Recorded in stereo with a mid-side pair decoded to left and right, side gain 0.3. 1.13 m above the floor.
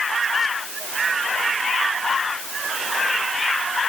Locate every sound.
Only background noise.